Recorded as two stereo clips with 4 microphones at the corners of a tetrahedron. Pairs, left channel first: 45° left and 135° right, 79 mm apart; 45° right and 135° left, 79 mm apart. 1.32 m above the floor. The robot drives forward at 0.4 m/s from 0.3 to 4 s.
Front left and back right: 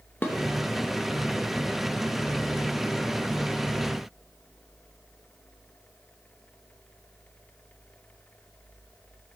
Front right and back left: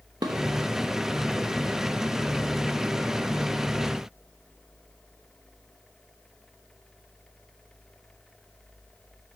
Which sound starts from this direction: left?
Dishes clattering, at 0.2 s.